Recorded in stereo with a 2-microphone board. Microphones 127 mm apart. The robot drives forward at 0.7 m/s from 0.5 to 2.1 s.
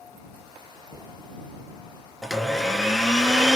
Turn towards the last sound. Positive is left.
turn(degrees=0)  # may be behind; listen again after turning